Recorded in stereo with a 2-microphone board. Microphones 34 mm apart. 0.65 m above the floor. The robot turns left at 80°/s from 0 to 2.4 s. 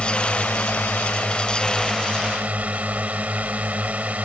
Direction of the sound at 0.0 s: 145° left.